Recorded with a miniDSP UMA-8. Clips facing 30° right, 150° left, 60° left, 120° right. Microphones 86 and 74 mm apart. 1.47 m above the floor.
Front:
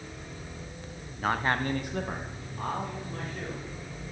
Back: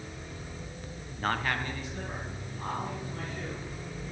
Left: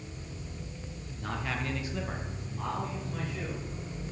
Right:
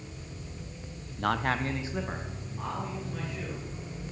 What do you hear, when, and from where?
1.2 s a man speaking: 125° right, 0.7 m; by 3.6 s 30° right, 3.5 m